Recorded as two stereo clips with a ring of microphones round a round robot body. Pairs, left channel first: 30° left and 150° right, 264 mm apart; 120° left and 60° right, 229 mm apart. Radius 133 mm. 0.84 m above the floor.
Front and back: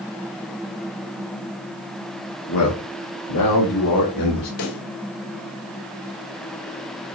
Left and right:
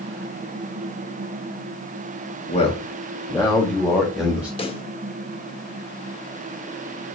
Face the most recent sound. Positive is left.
turn(degrees=55)